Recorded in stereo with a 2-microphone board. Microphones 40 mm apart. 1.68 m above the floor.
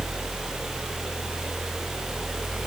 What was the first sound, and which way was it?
Only background noise.